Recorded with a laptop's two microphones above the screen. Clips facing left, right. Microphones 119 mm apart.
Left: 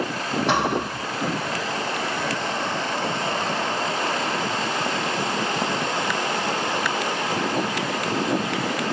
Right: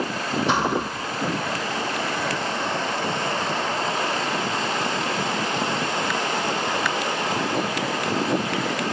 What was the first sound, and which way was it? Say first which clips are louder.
A thud: left 1 dB; 65° left (ahead or behind).